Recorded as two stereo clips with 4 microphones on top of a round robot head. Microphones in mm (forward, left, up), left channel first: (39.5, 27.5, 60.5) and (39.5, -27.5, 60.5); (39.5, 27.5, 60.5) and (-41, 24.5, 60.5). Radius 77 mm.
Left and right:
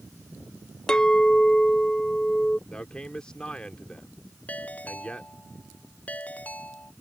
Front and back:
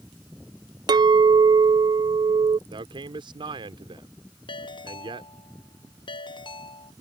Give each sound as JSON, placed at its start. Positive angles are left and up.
{"t": 0.9, "sound": "a clink", "azimuth_deg": 165}
{"t": 2.7, "sound": "a man speaking", "azimuth_deg": 165}
{"t": 4.5, "sound": "a ringtone", "azimuth_deg": 25}